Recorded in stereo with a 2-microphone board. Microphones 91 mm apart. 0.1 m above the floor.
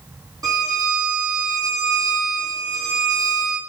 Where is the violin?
45° right (ahead or behind), 2.5 m.